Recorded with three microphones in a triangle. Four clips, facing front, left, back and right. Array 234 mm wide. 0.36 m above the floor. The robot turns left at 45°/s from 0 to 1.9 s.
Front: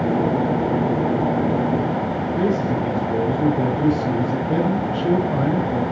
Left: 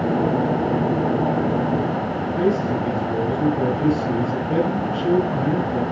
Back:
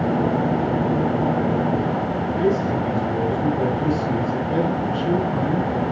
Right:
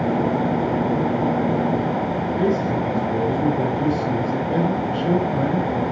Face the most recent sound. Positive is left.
turn(degrees=0)